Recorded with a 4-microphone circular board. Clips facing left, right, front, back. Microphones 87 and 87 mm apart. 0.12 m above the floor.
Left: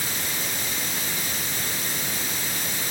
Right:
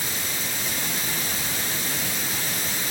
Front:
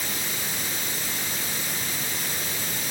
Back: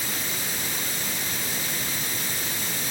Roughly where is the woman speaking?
No woman speaking in this recording.